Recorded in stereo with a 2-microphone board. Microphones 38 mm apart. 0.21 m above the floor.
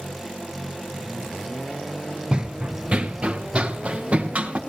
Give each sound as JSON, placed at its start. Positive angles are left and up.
{"t": 2.3, "sound": "running footsteps", "side_deg": -25, "distance_m": 0.5}